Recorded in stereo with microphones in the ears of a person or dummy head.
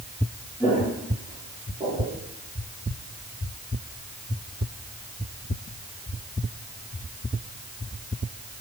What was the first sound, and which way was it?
Footsteps, 10° left (ahead or behind).